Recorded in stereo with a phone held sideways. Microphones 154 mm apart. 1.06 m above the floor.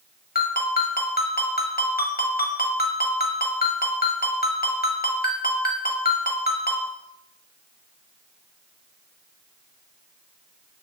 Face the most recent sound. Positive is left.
turn(degrees=80)